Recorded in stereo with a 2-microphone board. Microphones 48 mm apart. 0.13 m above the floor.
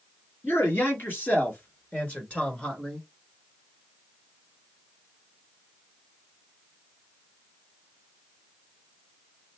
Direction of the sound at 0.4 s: 55° left (ahead or behind).